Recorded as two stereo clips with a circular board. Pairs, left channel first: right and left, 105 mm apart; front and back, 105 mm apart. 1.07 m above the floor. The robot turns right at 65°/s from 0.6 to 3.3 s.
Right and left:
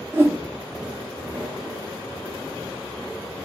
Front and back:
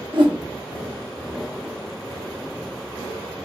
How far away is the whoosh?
About 1.2 m.